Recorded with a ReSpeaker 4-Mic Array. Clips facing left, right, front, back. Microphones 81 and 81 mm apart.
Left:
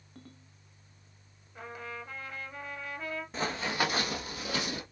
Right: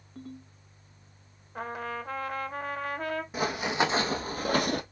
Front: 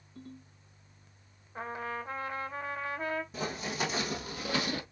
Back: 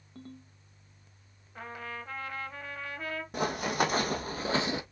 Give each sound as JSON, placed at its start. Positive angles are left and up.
{"t": 0.1, "sound": "a ringtone", "azimuth_deg": -175, "distance_m": 1.2}
{"t": 1.6, "sound": "a trumpet", "azimuth_deg": -60, "distance_m": 0.7}
{"t": 3.3, "sound": "running footsteps", "azimuth_deg": -170, "distance_m": 1.0}